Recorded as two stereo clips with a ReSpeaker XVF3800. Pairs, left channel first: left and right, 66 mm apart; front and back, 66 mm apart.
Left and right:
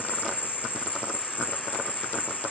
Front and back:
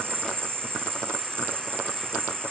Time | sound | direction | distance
0.0 | an insect | 140° left | ?